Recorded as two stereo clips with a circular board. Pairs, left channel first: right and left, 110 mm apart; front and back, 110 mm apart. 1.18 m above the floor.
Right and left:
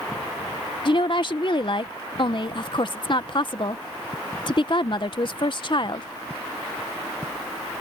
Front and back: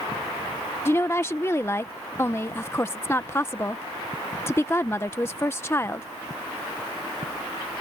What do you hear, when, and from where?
0.8 s a woman speaking: 65° right